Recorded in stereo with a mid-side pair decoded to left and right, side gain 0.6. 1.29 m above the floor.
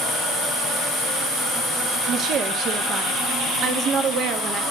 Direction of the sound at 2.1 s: 50° right.